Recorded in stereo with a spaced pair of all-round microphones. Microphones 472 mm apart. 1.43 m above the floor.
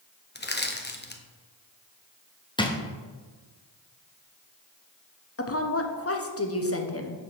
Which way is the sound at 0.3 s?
20° left (ahead or behind).